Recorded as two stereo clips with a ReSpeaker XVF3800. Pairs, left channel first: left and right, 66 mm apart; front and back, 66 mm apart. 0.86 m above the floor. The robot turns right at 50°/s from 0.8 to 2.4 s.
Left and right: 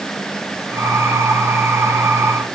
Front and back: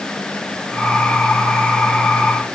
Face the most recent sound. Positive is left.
No sound to turn to.